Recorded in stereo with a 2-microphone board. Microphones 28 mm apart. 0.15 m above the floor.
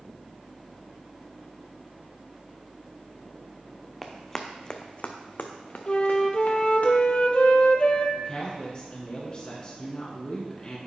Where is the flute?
40° left (ahead or behind), 0.6 m.